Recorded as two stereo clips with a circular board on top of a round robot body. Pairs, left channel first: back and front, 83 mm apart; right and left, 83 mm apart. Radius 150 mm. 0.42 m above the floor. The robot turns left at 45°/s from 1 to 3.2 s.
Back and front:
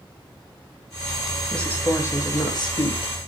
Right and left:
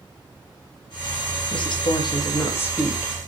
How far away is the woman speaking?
About 4 m.